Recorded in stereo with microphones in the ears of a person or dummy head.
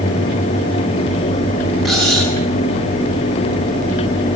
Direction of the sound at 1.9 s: Centre (ahead or behind).